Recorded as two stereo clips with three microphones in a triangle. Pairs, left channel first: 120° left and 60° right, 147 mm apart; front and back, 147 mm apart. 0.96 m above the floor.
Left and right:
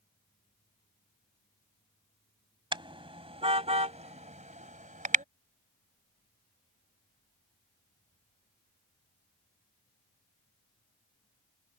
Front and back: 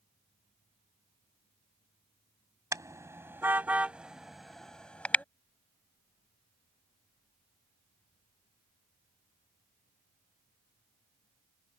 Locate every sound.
2.7 s a car horn: 115° right; by 5.2 s 80° right